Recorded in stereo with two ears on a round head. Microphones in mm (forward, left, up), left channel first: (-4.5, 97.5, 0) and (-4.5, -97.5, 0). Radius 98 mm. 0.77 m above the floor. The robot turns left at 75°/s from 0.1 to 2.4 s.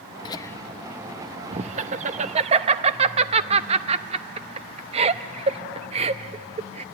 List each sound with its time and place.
0.2 s laughter: 20° left (ahead or behind), 0.5 m; by 6.8 s 30° right (ahead or behind), 0.5 m